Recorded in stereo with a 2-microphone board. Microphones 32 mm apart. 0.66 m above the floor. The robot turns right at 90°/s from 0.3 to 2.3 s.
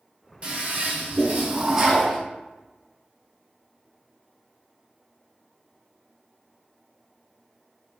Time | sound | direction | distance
0.4 | a toilet flushing | 140° right | 1.6 m